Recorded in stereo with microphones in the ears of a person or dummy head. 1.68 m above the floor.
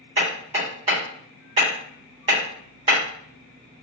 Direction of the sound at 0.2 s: 30° right (ahead or behind).